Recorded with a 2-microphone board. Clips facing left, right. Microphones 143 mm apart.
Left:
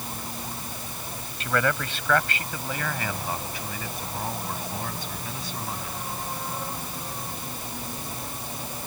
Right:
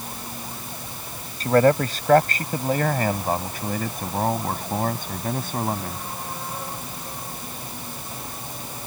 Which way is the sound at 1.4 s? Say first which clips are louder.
Right 9 dB; 40° right (ahead or behind).